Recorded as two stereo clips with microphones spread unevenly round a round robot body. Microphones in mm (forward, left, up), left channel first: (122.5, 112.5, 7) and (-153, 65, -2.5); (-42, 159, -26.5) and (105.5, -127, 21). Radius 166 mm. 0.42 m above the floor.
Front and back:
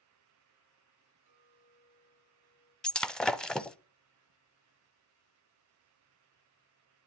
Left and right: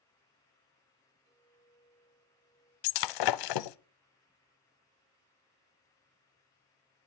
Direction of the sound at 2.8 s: 100° left.